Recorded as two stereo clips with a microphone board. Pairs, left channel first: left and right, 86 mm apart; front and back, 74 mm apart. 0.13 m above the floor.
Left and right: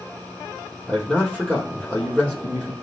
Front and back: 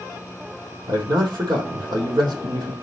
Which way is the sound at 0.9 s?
165° left.